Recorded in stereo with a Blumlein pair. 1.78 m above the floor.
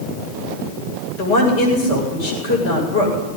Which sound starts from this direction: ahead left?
A woman speaking, at 1.2 s.